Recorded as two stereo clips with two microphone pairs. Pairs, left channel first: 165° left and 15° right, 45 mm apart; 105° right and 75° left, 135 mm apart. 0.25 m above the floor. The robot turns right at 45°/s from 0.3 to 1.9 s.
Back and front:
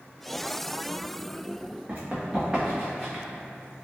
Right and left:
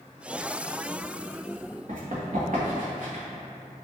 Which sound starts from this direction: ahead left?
Running footsteps, at 1.9 s.